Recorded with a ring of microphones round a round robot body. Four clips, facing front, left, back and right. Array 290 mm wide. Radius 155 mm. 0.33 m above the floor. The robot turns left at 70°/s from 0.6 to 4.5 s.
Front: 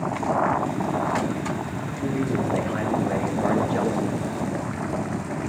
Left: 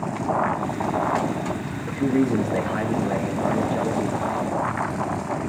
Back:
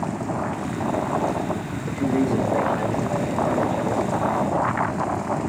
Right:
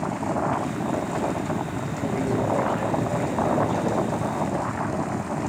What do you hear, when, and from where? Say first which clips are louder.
1.9 s a man speaking: left 7 dB, back 6 dB; 130° left, 5.5 m; by 4.3 s 35° right, 5.5 m